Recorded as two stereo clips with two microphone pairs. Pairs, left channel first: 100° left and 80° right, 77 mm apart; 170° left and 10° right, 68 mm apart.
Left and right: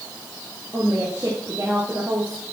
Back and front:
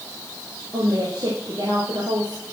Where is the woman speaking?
20° right, 3.5 m.